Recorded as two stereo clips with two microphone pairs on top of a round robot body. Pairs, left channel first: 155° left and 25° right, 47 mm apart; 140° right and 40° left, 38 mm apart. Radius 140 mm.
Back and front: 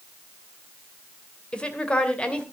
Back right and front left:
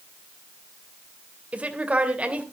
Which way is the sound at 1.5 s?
90° left.